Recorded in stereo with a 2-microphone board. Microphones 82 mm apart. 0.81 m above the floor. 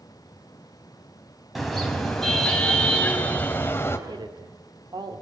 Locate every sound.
1.6 s a car horn: centre (ahead or behind), 3.5 m; by 4.0 s 30° left (ahead or behind), 2.5 m
4.1 s a woman speaking: 60° right (ahead or behind), 2.5 m